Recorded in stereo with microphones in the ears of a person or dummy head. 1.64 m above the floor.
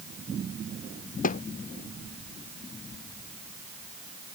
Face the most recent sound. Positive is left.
turn(degrees=50)  # may be behind; listen again after turning